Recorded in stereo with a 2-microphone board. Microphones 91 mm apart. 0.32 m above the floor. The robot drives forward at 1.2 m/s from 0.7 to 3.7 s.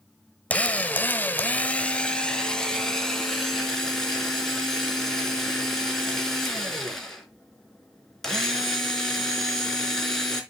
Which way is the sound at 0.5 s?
15° left (ahead or behind).